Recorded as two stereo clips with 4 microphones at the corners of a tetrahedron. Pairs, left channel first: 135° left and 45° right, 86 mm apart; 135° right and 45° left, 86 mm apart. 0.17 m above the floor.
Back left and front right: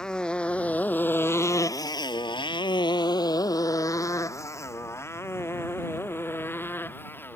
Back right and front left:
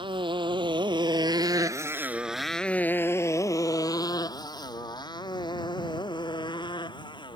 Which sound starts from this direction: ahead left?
A motorcycle, at 0.0 s.